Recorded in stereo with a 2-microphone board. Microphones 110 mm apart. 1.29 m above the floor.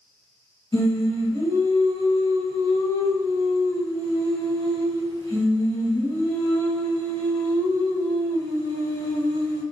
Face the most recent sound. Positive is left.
turn(degrees=40)  # may be behind; listen again after turning